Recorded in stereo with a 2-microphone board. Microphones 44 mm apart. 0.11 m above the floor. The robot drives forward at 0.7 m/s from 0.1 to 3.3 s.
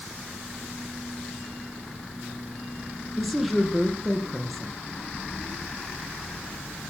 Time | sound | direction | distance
3.2 | a woman speaking | centre (ahead or behind) | 4 m